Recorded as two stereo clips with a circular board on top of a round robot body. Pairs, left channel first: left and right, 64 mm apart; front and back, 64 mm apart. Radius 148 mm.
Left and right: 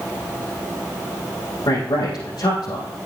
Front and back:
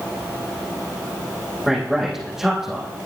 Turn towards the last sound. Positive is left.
turn(degrees=90)